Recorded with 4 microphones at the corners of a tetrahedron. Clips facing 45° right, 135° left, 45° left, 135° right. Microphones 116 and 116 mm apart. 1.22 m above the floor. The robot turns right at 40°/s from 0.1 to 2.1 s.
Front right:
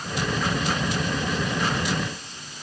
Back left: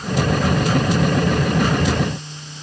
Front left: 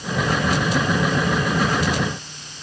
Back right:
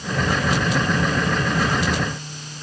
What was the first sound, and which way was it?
Only background noise.